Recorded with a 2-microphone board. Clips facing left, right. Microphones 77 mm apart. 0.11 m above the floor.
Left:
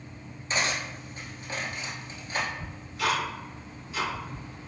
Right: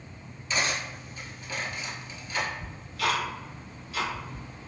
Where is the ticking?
25° left (ahead or behind), 1.4 m.